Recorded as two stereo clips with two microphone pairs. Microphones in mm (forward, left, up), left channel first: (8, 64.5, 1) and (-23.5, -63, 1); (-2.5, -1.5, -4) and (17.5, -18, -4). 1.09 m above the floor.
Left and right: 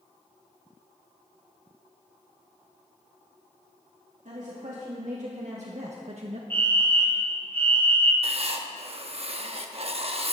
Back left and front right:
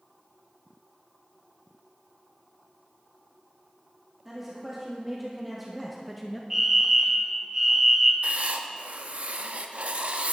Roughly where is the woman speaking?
Behind right.